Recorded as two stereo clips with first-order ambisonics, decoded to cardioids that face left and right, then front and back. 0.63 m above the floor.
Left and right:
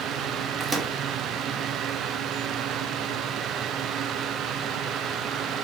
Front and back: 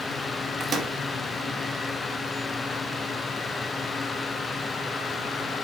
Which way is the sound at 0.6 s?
140° right.